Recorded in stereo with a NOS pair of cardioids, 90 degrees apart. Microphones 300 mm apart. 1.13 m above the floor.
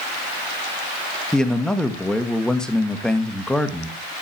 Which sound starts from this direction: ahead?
A man speaking, at 1.3 s.